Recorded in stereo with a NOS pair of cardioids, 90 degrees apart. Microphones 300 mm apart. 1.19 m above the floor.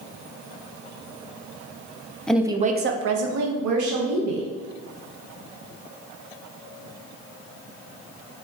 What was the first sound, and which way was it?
A woman speaking, 5° left.